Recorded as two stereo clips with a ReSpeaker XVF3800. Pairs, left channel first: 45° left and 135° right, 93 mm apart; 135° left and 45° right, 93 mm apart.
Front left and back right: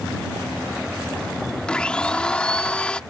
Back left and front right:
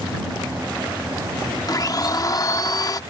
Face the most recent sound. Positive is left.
turn(degrees=120)